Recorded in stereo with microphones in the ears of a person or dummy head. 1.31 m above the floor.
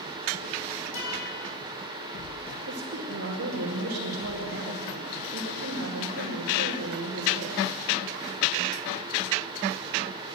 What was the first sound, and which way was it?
A guitar, 70° left (ahead or behind).